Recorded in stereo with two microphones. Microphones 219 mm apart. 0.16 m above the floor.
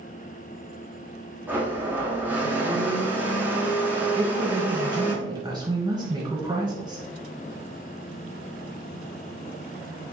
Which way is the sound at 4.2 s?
15° right (ahead or behind).